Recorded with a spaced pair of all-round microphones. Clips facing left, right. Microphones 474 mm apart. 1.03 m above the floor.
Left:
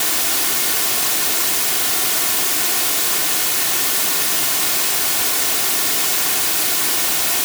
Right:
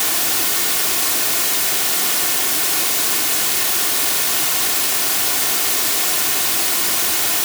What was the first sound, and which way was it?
Only background noise.